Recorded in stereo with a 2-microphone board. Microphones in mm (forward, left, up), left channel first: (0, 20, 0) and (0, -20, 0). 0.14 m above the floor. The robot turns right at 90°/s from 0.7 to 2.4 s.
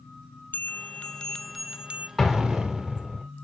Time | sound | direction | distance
0.5 | a bell | 105° left | 0.6 m
2.2 | an explosion | 10° left (ahead or behind) | 1.4 m